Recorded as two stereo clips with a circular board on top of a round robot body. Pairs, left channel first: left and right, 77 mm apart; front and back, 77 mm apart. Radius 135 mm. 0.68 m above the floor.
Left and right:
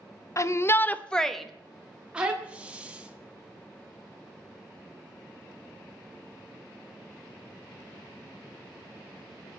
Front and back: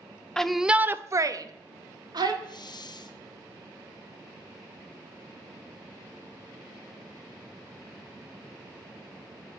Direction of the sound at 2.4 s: 15° right.